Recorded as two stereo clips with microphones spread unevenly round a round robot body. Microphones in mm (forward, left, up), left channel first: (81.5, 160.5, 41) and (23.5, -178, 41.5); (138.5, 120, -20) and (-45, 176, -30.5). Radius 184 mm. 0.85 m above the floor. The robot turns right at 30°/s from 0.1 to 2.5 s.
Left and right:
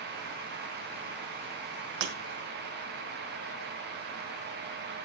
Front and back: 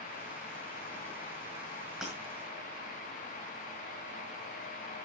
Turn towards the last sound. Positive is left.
turn(degrees=-95)